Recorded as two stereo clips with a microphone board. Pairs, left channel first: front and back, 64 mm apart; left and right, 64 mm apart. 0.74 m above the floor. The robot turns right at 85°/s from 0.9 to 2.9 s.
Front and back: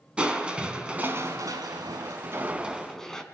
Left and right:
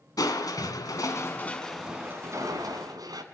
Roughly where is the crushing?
Left.